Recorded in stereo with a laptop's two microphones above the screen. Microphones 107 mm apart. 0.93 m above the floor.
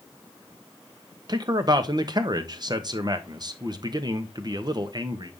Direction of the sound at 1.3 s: 40° right (ahead or behind).